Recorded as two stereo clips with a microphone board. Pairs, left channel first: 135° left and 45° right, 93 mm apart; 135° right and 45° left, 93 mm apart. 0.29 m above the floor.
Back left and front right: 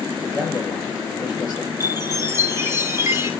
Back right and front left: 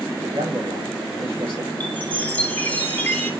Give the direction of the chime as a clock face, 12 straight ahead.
2 o'clock.